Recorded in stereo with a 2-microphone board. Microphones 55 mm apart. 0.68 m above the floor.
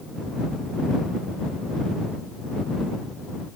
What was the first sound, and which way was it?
Only background noise.